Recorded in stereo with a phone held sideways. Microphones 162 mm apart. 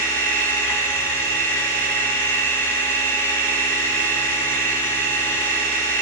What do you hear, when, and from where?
0.0 s a machine running: 10° left (ahead or behind), 4 m